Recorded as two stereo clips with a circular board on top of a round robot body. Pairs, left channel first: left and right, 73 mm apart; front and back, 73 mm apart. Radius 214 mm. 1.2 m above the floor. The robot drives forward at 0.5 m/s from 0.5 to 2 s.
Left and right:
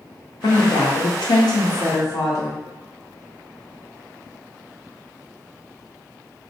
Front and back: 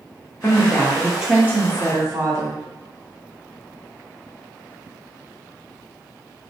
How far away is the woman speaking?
About 0.6 m.